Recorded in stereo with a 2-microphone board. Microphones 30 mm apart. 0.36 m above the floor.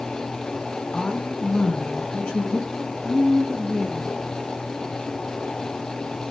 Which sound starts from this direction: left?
A woman speaking, at 0.9 s.